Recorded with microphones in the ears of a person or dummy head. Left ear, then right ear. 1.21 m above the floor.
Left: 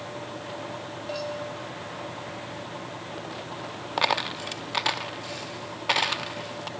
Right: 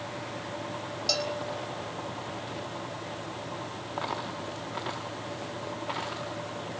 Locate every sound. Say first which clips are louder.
1.1 s a bell: right 3 dB; 80° right, 4 m
4.0 s a dropped coin: left 9 dB; 40° left (ahead or behind), 0.8 m